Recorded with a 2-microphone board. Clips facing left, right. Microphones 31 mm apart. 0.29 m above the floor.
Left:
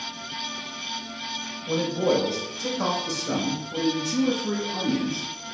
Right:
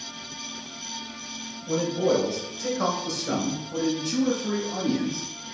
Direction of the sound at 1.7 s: 25° left (ahead or behind).